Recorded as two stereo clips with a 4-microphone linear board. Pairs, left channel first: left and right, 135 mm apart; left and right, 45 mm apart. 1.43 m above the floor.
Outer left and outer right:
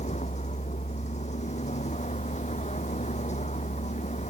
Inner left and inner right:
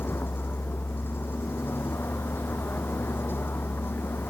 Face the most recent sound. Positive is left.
turn(degrees=55)  # may be behind; listen again after turning